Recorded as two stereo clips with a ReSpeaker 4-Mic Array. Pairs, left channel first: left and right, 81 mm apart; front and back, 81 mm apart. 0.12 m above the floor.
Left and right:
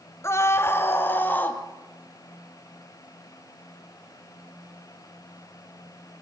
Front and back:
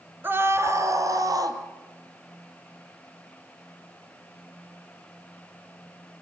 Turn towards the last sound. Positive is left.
turn(degrees=155)